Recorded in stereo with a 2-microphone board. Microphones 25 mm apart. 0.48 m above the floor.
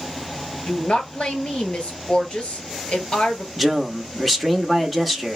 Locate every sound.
0.7 s a woman speaking: 45° left (ahead or behind), 3 m
3.6 s a man speaking: centre (ahead or behind), 1.2 m